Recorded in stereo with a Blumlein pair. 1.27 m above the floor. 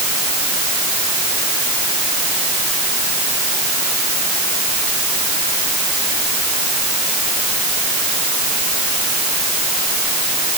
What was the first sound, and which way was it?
Only background noise.